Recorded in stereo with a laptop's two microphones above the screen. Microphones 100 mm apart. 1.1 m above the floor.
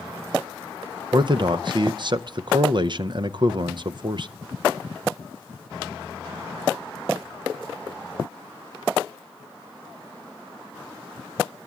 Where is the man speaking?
50° right (ahead or behind), 0.6 m.